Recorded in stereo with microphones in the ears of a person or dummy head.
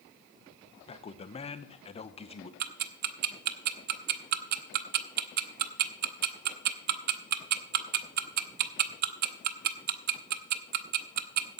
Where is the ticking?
55° right (ahead or behind), 0.7 m.